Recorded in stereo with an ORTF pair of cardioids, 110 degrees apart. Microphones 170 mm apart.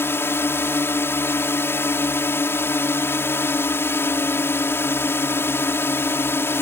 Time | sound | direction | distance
0.0 | a drone | 15° left | ?